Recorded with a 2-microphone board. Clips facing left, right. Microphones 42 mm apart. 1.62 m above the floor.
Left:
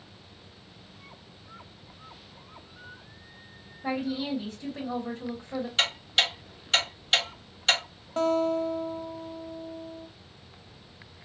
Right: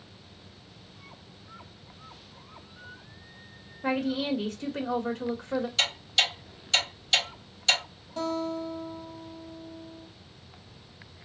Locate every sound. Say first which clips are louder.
3.8 s a woman speaking: right 2 dB; 70° right (ahead or behind), 1.4 m
5.8 s ticking: left 4 dB; 30° left (ahead or behind), 1.8 m
8.2 s a guitar: left 6 dB; 45° left (ahead or behind), 0.9 m